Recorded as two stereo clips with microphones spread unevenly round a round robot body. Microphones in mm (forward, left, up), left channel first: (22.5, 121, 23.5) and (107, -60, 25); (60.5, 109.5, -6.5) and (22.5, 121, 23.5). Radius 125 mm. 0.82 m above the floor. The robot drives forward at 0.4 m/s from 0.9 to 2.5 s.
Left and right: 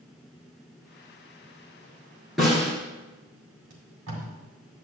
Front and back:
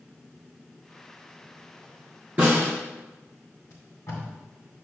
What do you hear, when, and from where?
2.4 s a snare drum: 155° right, 3 m
3.7 s tape being pulled: 75° right, 2 m